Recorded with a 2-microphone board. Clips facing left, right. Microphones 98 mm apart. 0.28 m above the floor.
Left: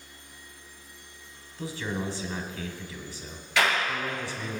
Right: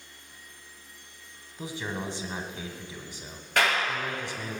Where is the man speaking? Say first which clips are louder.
Left 2 dB; 20° right (ahead or behind), 1.5 m.